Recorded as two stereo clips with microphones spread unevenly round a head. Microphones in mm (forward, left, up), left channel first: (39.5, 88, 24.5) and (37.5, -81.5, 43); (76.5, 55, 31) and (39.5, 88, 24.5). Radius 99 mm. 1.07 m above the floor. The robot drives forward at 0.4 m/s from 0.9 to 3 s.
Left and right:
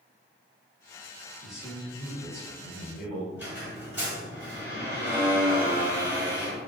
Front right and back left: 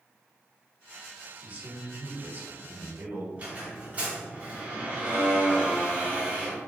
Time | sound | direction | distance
1.4 | a man speaking | straight behind | 0.9 m
3.4 | a squeak | 160° right | 1.0 m